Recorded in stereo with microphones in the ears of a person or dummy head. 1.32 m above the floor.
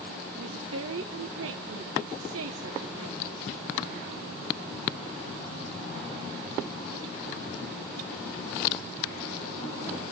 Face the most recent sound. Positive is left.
turn(degrees=-70)  # may be behind; listen again after turning